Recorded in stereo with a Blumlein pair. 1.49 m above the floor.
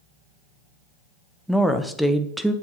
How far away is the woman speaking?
About 0.7 m.